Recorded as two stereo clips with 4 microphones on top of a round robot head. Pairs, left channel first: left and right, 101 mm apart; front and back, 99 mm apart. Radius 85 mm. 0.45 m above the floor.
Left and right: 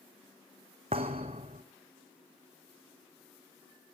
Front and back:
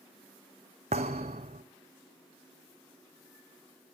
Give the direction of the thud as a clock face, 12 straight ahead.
5 o'clock.